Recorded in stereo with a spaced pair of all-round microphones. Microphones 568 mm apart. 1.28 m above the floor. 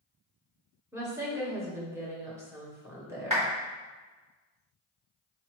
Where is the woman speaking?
5° right (ahead or behind), 1.1 m.